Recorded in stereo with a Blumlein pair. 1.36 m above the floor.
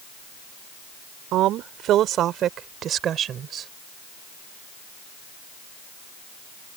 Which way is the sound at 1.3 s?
35° right.